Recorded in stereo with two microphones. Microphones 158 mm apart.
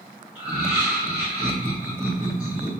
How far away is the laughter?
About 1.0 m.